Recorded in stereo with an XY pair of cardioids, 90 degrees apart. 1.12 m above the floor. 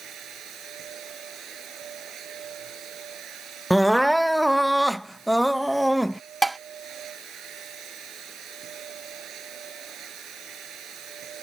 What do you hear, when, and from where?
0.0 s a machine running: 70° right
3.7 s crying: straight ahead
6.4 s dishes clattering: 15° right